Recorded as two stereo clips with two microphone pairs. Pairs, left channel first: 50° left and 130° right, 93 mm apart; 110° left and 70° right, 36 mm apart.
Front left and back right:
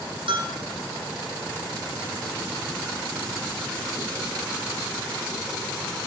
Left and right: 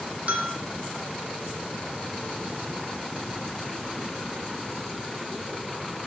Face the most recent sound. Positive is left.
turn(degrees=-115)